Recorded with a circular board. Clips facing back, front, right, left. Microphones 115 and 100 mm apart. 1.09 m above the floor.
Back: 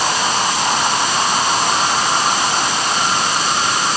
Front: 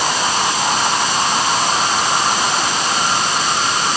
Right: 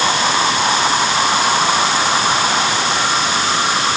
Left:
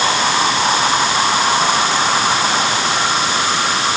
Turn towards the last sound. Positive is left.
No sound to turn to.